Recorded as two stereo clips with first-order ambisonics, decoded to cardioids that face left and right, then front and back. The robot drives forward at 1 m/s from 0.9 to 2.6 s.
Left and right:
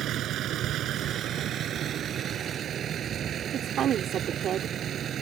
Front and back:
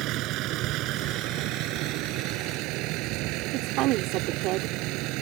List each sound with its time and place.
0.0 s a vehicle: 140° right; by 5.2 s 150° right
3.5 s a woman speaking: 145° right